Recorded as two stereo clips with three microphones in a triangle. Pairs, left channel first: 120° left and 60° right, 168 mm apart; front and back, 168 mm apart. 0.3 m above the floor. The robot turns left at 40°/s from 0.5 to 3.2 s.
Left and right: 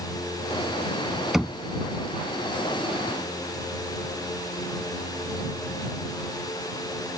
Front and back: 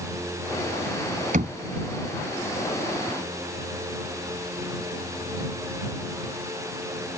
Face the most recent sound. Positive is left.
turn(degrees=140)